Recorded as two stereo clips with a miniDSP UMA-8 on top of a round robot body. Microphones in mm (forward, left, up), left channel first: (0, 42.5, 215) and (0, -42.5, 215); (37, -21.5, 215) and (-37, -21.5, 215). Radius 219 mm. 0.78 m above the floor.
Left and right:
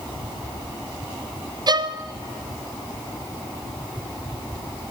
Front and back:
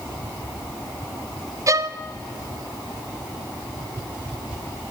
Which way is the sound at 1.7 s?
130° right.